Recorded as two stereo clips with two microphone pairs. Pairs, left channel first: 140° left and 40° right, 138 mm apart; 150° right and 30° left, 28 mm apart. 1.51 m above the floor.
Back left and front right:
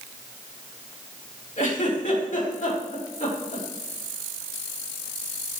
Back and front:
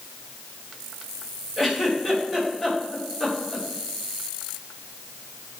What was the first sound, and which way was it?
A giggle, 120° left.